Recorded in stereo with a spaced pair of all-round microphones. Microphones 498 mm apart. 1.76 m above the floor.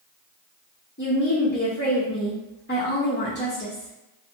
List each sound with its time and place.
1.0 s a woman speaking: 20° left (ahead or behind), 0.6 m